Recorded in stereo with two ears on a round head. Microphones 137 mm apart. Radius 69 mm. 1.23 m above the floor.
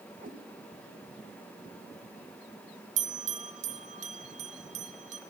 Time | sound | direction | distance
0.2 | a cat meowing | 55° right (ahead or behind) | 1.6 m
3.0 | a bell | 50° right (ahead or behind) | 1.2 m